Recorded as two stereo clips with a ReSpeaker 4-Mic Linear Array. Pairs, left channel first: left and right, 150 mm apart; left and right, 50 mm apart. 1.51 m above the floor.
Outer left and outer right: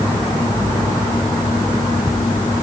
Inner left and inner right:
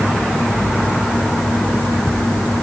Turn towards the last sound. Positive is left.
No sound to turn to.